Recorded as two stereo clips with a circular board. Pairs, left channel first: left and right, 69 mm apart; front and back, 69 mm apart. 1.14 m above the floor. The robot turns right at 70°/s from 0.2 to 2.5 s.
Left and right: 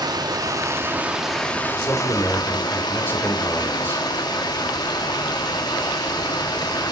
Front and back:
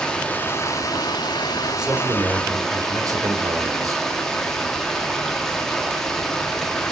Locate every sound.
0.0 s running water: 80° right, 1.8 m; by 6.9 s 85° left, 1.8 m
1.7 s a man speaking: 95° left, 4 m; by 4.0 s 150° left, 4 m